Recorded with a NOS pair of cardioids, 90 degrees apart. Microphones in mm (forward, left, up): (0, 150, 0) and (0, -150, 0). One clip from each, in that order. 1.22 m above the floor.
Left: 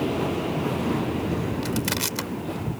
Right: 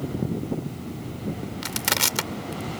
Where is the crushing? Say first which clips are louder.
Right 8 dB; 35° right.